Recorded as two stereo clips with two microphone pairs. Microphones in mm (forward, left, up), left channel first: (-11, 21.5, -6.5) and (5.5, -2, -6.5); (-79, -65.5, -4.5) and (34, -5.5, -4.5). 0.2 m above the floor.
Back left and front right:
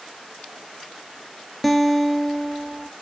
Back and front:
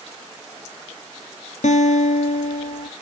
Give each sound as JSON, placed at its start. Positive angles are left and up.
{"t": 1.6, "sound": "a guitar", "azimuth_deg": -150, "distance_m": 0.7}